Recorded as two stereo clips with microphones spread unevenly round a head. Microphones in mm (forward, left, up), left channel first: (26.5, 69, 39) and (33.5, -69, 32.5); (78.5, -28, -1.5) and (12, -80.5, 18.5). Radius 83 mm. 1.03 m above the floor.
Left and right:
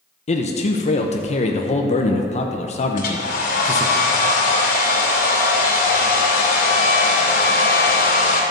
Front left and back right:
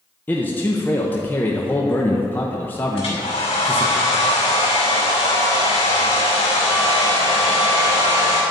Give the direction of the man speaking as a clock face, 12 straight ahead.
9 o'clock.